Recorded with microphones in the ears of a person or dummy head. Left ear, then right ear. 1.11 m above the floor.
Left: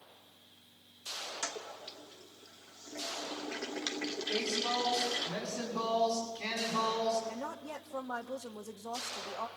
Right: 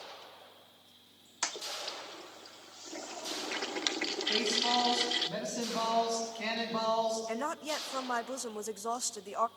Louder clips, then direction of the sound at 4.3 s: Right 4 dB; 35° right (ahead or behind).